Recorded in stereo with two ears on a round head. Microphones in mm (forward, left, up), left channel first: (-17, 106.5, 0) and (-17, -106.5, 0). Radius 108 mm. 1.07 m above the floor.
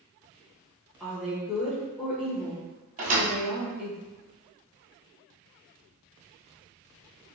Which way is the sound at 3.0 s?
35° right (ahead or behind).